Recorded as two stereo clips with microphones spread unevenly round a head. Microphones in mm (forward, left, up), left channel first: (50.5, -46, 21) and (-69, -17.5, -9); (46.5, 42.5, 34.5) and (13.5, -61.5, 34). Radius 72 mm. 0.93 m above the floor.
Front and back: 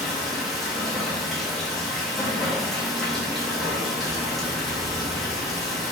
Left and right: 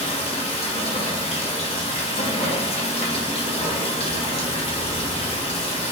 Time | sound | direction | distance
0.0 | running water | 85° left | 0.8 m